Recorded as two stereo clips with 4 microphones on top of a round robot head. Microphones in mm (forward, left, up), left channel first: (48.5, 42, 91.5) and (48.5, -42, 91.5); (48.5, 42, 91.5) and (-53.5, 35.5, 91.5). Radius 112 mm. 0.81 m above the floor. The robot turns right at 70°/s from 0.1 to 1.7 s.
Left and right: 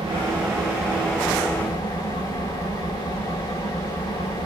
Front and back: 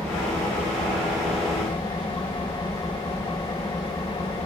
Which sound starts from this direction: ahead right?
An engine running, at 0.0 s.